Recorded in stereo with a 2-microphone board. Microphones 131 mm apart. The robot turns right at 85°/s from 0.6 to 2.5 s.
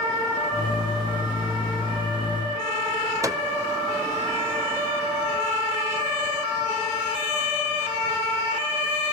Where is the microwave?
25° right (ahead or behind), 0.7 m.